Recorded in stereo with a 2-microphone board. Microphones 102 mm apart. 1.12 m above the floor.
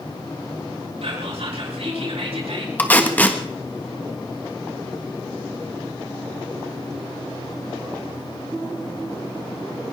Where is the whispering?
70° right (ahead or behind), 5.5 m.